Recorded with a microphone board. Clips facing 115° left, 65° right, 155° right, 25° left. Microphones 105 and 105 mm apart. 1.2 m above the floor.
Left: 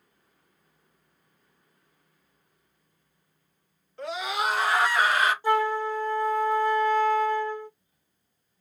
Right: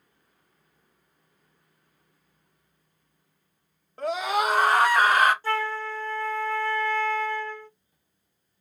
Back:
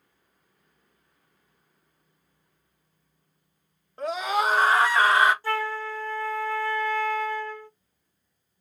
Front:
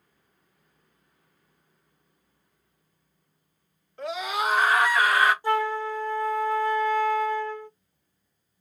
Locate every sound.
4.0 s a scream: 110° right, 1.9 m; by 5.3 s 95° right, 1.0 m
5.4 s a flute: 65° left, 0.6 m